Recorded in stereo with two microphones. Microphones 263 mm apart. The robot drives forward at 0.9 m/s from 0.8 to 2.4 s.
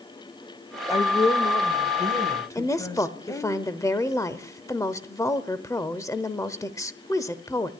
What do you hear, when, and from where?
0.9 s a woman speaking: 25° left (ahead or behind), 0.9 m; by 3.5 s 15° left (ahead or behind), 1.6 m
2.5 s a woman speaking: 15° left (ahead or behind), 0.9 m